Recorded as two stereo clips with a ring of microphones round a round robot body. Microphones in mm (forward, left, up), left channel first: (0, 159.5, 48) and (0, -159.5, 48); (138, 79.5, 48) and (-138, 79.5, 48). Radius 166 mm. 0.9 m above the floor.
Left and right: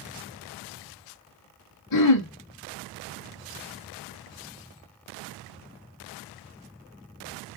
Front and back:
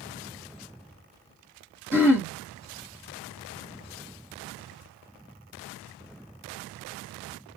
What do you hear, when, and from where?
1.9 s throat clearing: 100° left, 1.2 m